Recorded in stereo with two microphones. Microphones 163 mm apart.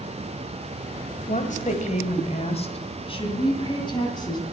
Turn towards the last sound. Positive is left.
turn(degrees=25)  # may be behind; listen again after turning